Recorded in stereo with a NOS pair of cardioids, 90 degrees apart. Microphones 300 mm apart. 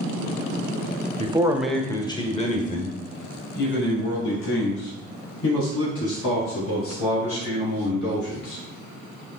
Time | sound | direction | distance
1.2 | a man speaking | 20° right | 0.7 m